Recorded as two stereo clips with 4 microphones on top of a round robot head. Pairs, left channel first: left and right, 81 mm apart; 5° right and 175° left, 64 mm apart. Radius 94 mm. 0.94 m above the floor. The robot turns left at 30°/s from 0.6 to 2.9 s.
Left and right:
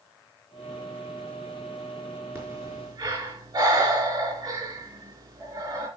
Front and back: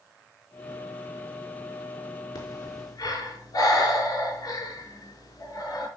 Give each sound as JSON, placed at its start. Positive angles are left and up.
{"t": 2.4, "sound": "breathing", "azimuth_deg": -30, "distance_m": 4.0}